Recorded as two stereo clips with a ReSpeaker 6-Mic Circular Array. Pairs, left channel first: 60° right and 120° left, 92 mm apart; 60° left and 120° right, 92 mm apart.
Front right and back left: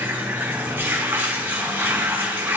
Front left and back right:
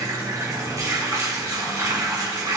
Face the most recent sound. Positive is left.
turn(degrees=-175)